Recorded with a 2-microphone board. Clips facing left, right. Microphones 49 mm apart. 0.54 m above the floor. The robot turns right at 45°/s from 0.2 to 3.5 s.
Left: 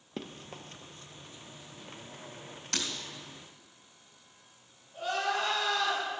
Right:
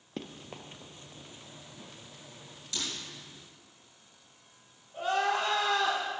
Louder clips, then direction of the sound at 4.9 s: Right 3 dB; 20° right (ahead or behind).